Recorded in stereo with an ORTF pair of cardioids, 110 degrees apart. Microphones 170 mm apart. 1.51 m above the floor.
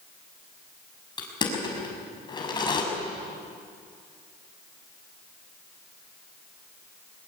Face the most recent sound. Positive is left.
turn(degrees=25)